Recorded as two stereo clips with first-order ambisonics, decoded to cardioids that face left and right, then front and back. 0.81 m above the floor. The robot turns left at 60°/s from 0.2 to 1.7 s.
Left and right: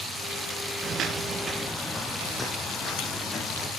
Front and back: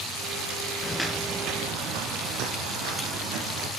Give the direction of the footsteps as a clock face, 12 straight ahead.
2 o'clock.